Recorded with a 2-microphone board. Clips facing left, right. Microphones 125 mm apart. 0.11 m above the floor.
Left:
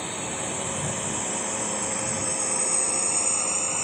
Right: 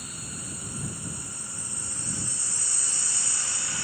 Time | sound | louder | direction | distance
0.0 | a drone | left 10 dB | 75° left (ahead or behind) | ?